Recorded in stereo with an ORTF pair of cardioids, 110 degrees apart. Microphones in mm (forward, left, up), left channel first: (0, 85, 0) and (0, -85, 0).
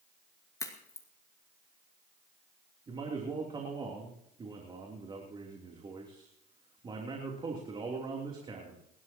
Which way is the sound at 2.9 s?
30° right.